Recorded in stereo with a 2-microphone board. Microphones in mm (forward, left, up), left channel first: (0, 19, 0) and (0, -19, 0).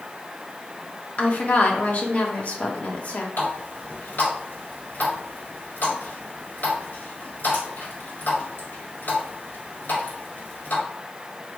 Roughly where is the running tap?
Left.